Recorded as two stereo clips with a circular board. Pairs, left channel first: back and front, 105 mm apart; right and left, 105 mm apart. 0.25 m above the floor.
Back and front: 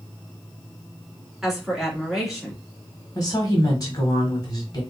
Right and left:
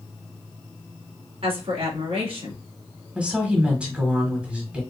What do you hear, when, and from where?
1.4 s a woman speaking: 85° left, 2.5 m
3.1 s a woman speaking: 165° left, 1.4 m